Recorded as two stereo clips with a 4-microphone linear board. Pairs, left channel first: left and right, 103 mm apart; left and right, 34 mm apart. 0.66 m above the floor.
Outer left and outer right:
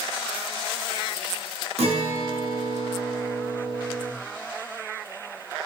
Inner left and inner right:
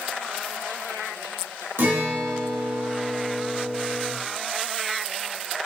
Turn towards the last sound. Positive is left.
turn(degrees=-85)